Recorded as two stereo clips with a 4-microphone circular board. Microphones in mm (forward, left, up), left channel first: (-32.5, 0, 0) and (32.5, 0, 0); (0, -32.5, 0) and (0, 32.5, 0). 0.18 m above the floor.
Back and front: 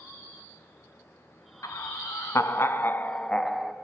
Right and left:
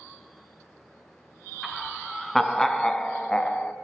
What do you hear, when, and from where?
1.6 s laughter: straight behind, 3.5 m; by 3.7 s 80° right, 1.7 m